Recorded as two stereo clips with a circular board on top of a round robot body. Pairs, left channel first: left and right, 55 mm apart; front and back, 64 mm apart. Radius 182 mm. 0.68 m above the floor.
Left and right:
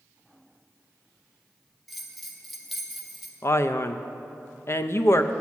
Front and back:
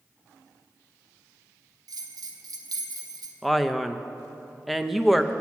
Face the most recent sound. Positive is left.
turn(degrees=90)